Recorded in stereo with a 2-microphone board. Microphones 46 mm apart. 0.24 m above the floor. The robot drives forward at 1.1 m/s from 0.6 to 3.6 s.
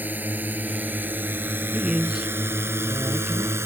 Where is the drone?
40° right (ahead or behind); by 3.7 s 65° right (ahead or behind).